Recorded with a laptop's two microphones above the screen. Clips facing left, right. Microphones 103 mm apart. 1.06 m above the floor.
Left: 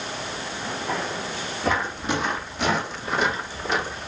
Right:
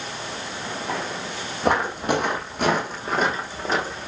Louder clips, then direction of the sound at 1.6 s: Right 4 dB; 60° right (ahead or behind).